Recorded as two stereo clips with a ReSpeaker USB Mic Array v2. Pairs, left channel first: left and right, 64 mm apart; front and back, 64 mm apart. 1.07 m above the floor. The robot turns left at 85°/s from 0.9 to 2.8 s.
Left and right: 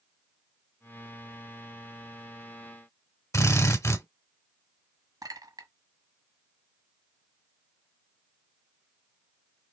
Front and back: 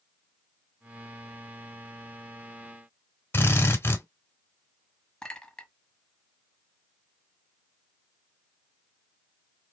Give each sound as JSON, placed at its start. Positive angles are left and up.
{"t": 3.3, "sound": "a drill", "azimuth_deg": 55, "distance_m": 2.0}
{"t": 5.2, "sound": "a clink", "azimuth_deg": -80, "distance_m": 1.0}